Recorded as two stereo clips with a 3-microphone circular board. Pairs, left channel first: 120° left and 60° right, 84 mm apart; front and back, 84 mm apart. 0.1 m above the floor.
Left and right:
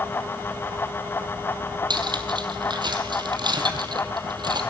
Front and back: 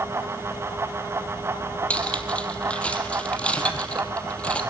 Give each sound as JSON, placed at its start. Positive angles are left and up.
{"t": 1.9, "sound": "cutlery clinking", "azimuth_deg": -75, "distance_m": 1.9}